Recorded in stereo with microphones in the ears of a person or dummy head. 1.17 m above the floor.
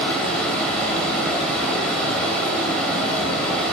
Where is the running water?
5° left (ahead or behind), 2.5 m.